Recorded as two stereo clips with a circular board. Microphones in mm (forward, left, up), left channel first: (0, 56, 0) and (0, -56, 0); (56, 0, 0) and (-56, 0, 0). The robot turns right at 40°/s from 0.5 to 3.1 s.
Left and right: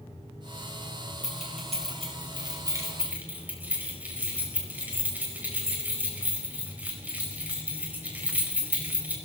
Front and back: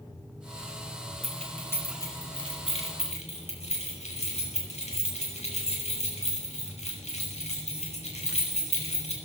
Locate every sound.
1.2 s keys jangling: 90° right, 5 m; by 9.2 s 15° right, 5 m